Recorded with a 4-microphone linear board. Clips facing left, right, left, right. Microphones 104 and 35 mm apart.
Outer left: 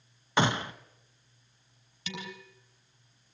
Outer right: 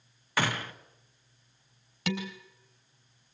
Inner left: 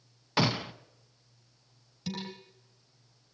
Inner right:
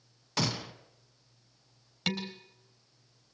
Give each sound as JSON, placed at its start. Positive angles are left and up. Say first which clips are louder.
{"t": 0.4, "sound": "a gunshot", "louder": "outer left 4 dB, inner left 5 dB", "side_deg": 25, "distance_m": 0.8}
{"t": 2.1, "sound": "dishes clattering", "louder": "outer right 8 dB, inner right 5 dB", "side_deg": -75, "distance_m": 4.0}